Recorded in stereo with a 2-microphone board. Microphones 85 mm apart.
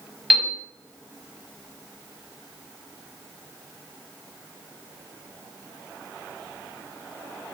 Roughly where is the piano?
Centre.